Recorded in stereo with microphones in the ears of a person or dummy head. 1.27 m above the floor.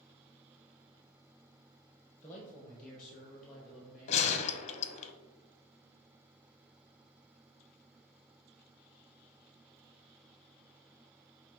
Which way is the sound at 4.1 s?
35° left (ahead or behind).